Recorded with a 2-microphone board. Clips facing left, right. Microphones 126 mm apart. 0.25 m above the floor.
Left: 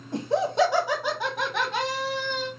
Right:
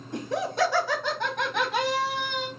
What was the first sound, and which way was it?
Laughter, 30° left (ahead or behind).